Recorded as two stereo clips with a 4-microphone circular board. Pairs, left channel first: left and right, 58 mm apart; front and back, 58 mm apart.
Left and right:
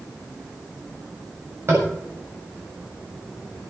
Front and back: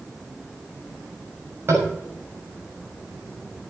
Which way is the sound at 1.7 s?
135° right.